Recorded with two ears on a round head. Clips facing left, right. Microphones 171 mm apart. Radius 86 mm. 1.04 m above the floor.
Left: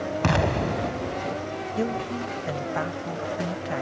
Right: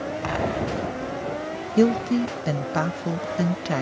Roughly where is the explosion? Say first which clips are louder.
Left 2 dB; left.